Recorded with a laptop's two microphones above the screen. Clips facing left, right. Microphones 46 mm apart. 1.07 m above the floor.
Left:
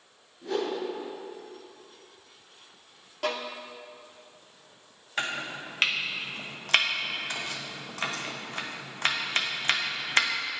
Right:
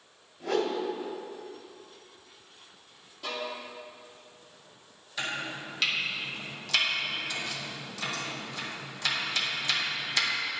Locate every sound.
0.4 s a whoosh: 55° right (ahead or behind), 2 m
3.2 s a violin: 65° left (ahead or behind), 0.8 m
5.2 s chopping: 40° left (ahead or behind), 0.9 m